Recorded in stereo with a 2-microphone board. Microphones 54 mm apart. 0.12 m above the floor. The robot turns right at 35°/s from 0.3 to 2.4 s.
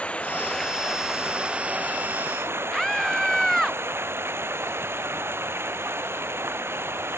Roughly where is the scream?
Centre.